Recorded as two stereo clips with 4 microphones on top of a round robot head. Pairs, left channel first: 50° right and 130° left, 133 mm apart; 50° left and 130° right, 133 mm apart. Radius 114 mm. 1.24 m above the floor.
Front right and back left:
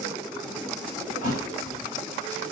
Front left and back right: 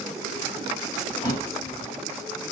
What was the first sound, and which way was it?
A thud, 20° right.